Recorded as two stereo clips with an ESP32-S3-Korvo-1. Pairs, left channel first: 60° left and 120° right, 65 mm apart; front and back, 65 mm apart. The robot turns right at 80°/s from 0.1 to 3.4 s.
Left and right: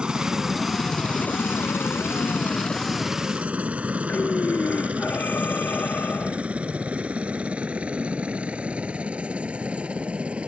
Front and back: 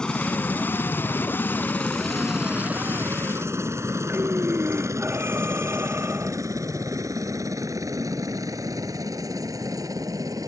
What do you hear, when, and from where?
0.0 s a helicopter: 60° right; by 10.5 s 170° left
4.1 s breathing: 125° left